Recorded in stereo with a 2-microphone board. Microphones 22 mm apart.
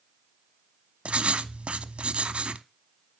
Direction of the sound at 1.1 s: 65° right (ahead or behind).